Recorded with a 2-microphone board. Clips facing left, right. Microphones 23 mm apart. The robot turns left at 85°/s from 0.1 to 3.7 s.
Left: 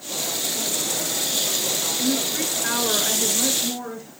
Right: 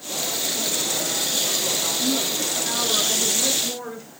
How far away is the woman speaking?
About 4 m.